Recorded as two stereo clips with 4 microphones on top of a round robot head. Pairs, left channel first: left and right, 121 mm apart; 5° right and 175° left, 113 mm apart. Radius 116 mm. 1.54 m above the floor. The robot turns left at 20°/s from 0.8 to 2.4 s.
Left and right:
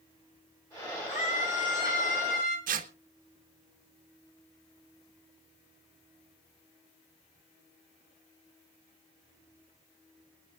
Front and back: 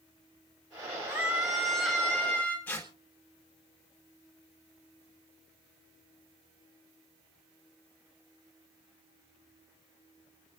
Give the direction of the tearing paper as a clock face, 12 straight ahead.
3 o'clock.